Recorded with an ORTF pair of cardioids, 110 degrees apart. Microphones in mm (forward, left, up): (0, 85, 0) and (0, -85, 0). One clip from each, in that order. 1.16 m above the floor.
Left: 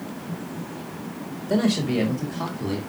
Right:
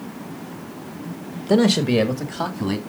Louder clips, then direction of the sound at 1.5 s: Right 6 dB; 60° right.